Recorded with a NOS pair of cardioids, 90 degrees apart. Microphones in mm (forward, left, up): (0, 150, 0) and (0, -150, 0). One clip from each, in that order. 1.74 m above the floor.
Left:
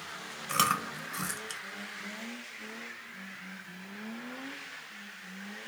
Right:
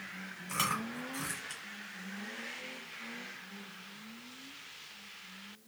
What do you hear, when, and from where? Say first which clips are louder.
0.5 s chewing: left 6 dB; 50° left, 1.1 m